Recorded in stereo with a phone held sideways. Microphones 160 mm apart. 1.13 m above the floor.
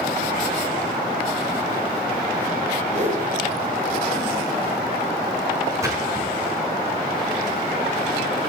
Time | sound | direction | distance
2.9 | a whoosh | 45° right (ahead or behind) | 3 m
5.8 | a splash | 15° right (ahead or behind) | 5.5 m